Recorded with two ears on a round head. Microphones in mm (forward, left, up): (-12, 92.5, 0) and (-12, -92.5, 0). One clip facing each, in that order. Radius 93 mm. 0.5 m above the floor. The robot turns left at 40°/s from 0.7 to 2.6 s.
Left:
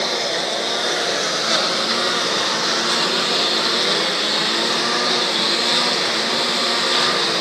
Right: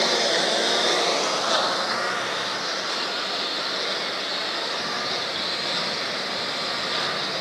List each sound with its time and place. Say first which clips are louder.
0.0 s a lawn mower: even; 175° right; by 7.4 s 110° left